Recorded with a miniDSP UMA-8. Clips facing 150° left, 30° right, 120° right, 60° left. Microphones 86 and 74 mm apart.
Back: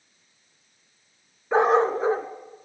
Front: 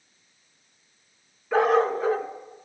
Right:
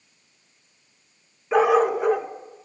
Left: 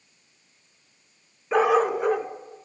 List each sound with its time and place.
1.5 s a dog barking: 155° left, 0.6 m